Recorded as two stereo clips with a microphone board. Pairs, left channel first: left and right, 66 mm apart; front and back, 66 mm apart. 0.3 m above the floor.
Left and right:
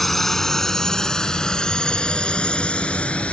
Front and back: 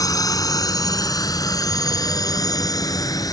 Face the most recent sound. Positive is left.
turn(degrees=20)